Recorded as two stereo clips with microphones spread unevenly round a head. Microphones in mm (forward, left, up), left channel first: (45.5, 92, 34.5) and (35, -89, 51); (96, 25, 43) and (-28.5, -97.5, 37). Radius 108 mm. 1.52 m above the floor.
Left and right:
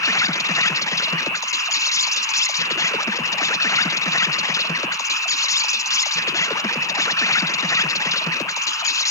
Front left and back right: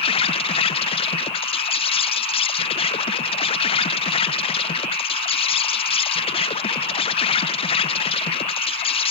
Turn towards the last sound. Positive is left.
turn(degrees=50)